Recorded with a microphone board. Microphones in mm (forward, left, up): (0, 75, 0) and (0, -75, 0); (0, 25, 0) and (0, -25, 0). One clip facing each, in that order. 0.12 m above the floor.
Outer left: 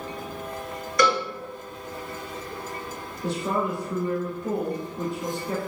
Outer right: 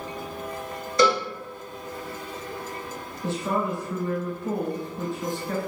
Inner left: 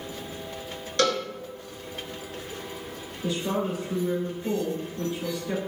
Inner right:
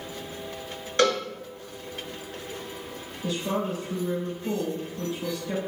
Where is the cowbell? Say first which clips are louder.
Outer right 2 dB, inner right 2 dB; 30° right (ahead or behind), 0.9 m.